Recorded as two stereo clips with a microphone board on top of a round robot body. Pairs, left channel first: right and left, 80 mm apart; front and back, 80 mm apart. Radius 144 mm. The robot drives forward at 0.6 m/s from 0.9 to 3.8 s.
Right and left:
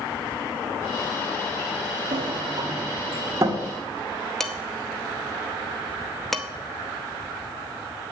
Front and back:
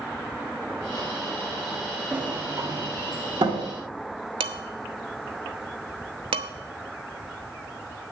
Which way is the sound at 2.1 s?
105° left.